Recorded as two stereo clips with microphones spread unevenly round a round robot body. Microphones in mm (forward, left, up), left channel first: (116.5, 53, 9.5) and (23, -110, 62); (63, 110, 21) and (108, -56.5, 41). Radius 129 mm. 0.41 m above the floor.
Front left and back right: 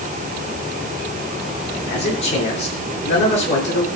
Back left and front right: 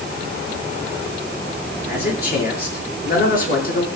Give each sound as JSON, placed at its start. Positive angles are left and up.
{"t": 1.9, "sound": "a man speaking", "azimuth_deg": 80, "distance_m": 7.5}